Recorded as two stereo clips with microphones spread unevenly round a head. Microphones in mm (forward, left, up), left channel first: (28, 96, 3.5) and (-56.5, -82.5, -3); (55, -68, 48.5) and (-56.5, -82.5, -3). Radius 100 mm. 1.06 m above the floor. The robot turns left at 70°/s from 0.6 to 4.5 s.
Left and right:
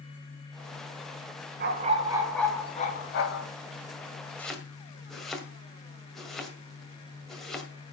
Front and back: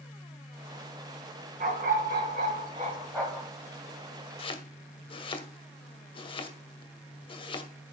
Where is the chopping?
15° right, 2 m; by 7.7 s 25° right, 2 m.